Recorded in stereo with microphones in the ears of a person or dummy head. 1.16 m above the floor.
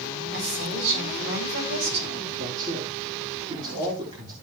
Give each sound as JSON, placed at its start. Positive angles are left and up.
{"t": 0.3, "sound": "a woman speaking", "side_deg": -65, "distance_m": 6.5}
{"t": 2.4, "sound": "a man speaking", "side_deg": -35, "distance_m": 3.5}